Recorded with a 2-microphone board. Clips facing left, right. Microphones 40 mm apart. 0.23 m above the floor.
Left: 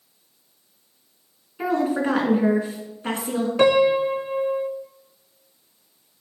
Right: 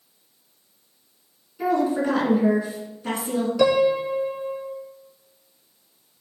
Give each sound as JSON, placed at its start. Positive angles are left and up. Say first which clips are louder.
{"t": 1.6, "sound": "a woman speaking", "louder": "even", "side_deg": 40, "distance_m": 3.0}
{"t": 3.6, "sound": "a piano", "louder": "left 2 dB", "side_deg": 45, "distance_m": 0.6}